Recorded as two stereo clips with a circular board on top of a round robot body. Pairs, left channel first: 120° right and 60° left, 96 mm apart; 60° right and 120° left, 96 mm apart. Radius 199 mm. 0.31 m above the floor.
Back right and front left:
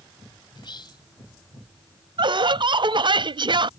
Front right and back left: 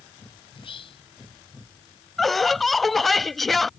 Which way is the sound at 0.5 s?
80° right.